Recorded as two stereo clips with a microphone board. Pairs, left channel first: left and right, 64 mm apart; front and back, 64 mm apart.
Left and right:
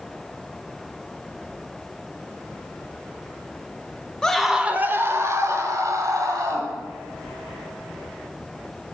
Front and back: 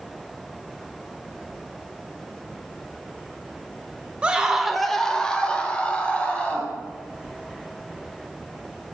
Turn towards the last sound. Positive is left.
turn(degrees=-70)